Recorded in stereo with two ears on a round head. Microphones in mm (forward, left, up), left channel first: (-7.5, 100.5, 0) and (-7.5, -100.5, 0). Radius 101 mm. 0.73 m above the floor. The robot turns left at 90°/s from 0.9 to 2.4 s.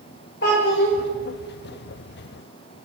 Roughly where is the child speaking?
Left.